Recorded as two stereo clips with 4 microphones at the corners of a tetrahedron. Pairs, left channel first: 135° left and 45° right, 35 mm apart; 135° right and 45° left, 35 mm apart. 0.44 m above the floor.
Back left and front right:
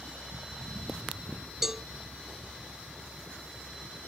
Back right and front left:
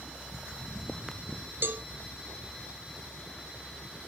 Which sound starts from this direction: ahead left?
A cowbell, at 1.6 s.